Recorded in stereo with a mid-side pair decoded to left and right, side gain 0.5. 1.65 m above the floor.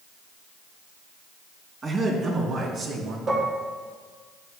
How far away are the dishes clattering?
About 2.5 m.